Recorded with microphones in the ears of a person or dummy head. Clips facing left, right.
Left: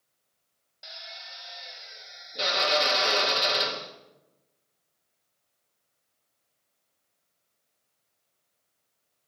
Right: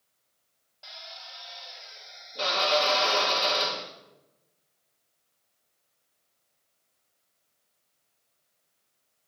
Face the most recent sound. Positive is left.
turn(degrees=30)  # may be behind; listen again after turning